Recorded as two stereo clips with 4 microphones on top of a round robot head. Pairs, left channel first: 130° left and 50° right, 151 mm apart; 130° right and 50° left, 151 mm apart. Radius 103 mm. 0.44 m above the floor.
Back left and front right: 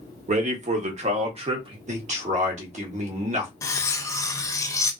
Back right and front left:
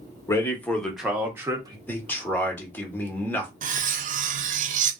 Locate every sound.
0.3 s a man speaking: 65° right, 1.2 m; by 1.8 s 5° right, 1.1 m
1.9 s a man speaking: 55° right, 1.4 m
3.6 s cutlery clinking: 65° left, 0.5 m